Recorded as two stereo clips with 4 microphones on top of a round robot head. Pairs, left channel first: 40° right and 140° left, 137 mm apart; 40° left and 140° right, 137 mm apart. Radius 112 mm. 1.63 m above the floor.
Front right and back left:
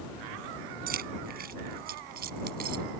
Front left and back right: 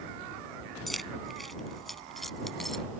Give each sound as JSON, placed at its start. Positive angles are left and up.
{"t": 0.9, "sound": "keys jangling", "azimuth_deg": 130}